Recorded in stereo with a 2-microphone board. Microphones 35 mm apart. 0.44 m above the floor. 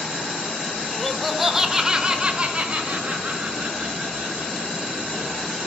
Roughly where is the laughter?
Centre.